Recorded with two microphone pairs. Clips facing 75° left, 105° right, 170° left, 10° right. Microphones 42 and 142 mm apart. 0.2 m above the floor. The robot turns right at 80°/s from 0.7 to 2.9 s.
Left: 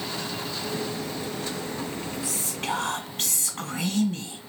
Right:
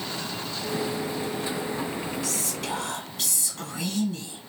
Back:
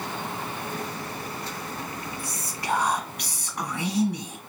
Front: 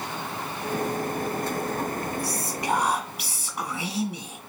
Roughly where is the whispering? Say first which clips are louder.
Even, front 3 dB; ahead.